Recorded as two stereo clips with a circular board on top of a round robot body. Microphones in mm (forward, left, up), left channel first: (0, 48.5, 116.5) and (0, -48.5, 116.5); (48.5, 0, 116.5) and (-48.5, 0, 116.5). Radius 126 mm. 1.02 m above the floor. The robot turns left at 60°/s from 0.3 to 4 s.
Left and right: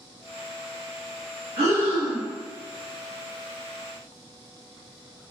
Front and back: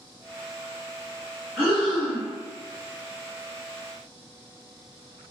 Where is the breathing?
110° right, 1.3 m; by 2.3 s 155° right, 1.3 m.